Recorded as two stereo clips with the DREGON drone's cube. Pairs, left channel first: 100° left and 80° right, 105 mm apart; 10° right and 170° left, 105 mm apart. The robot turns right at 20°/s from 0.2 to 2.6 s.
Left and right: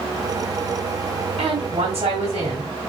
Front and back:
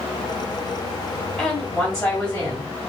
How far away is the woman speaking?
About 3 m.